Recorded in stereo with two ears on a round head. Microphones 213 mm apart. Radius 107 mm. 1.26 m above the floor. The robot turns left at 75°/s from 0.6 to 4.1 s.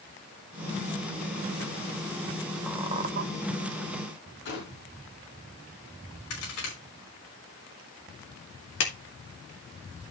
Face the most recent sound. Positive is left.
turn(degrees=55)  # may be behind; listen again after turning